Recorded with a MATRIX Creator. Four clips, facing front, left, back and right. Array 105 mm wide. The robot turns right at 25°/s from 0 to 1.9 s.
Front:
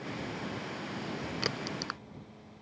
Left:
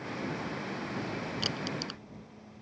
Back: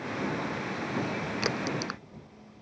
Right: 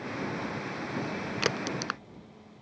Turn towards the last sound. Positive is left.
turn(degrees=-95)